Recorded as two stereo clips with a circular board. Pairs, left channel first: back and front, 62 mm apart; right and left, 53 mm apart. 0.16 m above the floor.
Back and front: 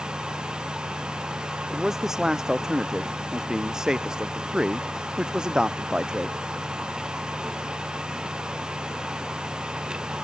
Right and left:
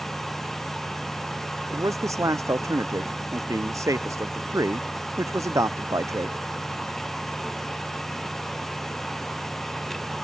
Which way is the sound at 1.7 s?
85° left.